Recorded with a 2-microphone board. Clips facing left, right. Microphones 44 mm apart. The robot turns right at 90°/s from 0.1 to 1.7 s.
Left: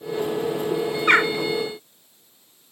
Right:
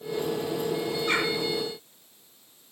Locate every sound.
1.1 s a bird: 60° left (ahead or behind), 0.6 m; by 1.3 s 55° left (ahead or behind), 0.6 m